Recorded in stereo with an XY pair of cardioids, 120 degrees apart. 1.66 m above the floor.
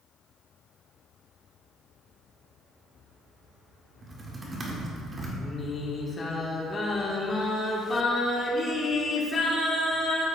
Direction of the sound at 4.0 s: 25° right.